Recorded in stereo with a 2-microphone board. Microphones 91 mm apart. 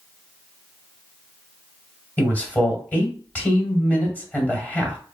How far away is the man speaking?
About 1.5 m.